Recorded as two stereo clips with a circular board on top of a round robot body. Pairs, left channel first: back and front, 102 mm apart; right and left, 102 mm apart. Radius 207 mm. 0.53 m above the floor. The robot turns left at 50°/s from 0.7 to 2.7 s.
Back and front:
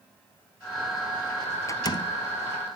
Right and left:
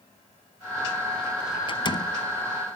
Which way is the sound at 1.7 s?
120° right.